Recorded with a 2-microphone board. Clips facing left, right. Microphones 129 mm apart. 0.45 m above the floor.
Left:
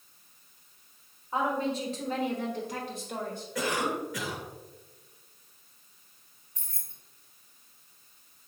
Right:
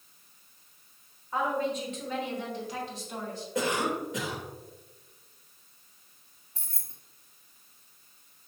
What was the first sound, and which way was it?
A woman speaking, 20° left (ahead or behind).